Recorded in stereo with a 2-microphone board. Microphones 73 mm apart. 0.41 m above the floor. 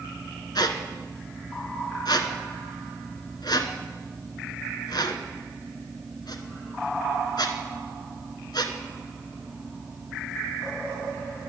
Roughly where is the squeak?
Left.